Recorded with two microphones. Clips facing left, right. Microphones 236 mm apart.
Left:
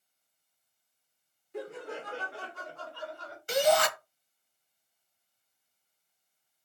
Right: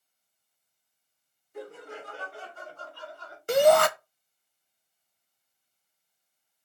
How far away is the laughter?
About 3 m.